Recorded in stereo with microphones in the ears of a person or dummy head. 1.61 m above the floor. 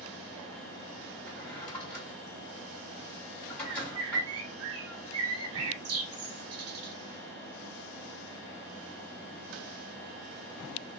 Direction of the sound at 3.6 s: 75° right (ahead or behind).